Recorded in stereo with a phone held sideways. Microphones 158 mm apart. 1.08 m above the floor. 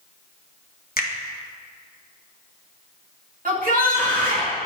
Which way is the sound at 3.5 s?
65° right (ahead or behind).